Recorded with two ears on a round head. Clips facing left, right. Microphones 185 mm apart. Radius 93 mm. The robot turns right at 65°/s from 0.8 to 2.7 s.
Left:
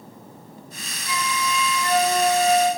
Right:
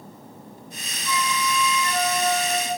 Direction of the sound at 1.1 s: 40° left.